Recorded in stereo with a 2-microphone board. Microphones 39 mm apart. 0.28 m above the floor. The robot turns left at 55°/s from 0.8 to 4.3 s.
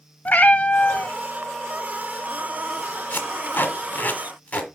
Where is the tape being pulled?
55° left (ahead or behind), 1.4 m; by 4.7 s 35° left (ahead or behind), 1.4 m.